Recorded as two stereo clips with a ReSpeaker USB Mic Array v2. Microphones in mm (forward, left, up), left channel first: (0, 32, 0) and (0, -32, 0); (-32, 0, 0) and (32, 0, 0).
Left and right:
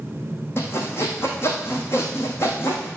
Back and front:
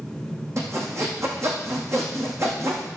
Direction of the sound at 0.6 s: 40° left.